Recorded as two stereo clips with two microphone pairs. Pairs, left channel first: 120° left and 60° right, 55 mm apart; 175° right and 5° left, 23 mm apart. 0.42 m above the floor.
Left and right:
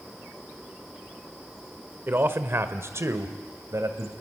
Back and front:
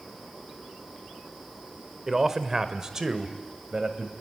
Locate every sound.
2.1 s a man speaking: 70° right, 1.3 m; by 4.1 s 50° right, 2 m